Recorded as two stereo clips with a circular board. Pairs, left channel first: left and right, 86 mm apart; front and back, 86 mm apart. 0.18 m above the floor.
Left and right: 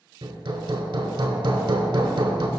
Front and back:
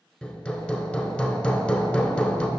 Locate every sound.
0.2 s hammering: 75° right, 0.6 m